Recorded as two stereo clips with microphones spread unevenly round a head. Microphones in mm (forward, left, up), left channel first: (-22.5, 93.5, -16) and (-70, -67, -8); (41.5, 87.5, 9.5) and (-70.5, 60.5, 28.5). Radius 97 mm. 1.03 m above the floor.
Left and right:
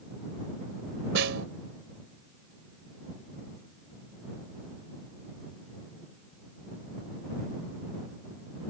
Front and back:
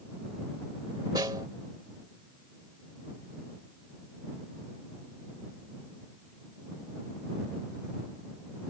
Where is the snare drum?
95° right.